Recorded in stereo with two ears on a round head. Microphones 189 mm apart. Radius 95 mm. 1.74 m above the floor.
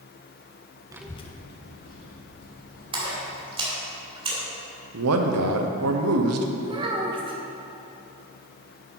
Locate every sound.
0.9 s a child speaking: 15° right (ahead or behind), 0.5 m; by 3.3 s 75° left (ahead or behind), 3 m
2.9 s a splash: 25° right (ahead or behind), 2.5 m
4.9 s a man speaking: 80° right, 0.9 m
6.6 s a child speaking: 25° right (ahead or behind), 1.2 m